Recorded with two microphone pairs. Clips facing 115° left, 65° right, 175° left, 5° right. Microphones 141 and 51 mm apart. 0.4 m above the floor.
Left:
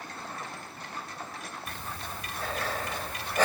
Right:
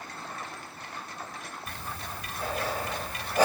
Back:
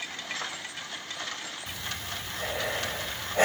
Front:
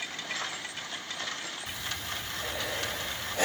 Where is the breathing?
140° right, 0.9 m.